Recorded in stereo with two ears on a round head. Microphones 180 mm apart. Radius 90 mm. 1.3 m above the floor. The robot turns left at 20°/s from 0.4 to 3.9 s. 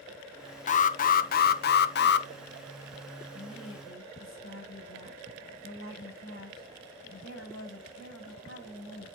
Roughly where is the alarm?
Behind left.